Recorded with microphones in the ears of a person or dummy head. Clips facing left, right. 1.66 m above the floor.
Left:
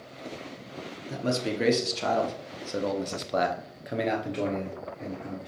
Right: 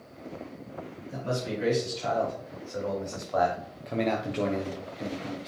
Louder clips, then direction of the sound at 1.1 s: Left 3 dB; 80° left.